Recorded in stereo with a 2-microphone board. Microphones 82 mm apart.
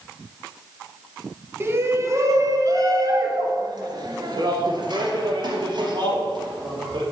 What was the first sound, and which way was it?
A shout, 30° right (ahead or behind).